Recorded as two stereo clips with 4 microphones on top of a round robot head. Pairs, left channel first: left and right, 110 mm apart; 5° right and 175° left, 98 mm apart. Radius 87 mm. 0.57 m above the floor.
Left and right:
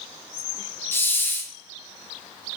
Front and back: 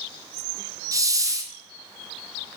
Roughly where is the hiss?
Behind left.